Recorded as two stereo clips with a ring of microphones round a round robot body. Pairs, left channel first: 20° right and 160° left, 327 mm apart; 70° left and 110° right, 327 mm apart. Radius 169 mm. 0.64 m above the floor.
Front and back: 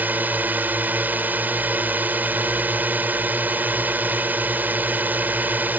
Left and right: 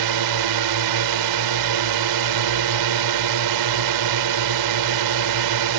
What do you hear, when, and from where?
0.0 s a drone: 120° right